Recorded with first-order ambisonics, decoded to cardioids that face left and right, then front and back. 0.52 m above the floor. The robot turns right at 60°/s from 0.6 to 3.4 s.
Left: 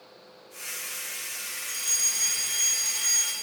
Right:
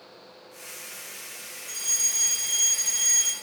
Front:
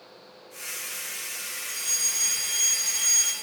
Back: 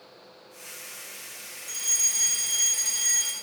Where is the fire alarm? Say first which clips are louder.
Right 1 dB, back 2 dB; 120° left, 2 m; by 3.3 s 140° right, 2 m.